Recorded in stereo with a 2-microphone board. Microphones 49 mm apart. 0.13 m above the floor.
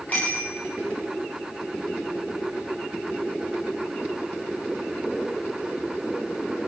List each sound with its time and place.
0.1 s a bicycle bell: 30° left (ahead or behind), 9.5 m